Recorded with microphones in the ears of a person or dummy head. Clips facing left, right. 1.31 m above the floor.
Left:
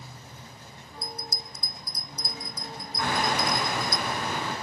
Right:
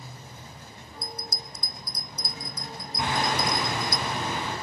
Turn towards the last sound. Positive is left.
turn(degrees=-20)  # may be behind; listen again after turning